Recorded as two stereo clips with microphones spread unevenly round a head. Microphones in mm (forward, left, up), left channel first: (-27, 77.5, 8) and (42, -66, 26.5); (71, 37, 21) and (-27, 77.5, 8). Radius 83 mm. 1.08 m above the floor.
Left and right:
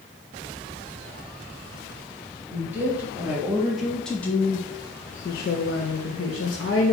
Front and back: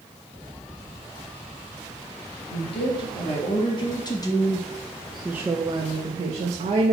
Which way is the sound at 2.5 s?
15° left.